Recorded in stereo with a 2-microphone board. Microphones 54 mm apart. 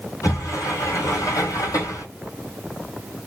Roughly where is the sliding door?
Left.